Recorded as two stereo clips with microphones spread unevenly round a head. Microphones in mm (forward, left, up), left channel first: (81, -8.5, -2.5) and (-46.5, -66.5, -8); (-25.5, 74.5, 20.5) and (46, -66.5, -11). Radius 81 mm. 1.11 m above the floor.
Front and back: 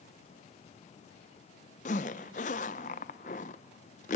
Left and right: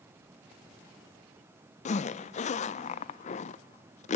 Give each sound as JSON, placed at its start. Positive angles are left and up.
{"t": 1.9, "sound": "a zipper", "azimuth_deg": 65, "distance_m": 0.5}